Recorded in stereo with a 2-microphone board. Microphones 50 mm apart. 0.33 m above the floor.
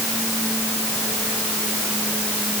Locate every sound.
Only background noise.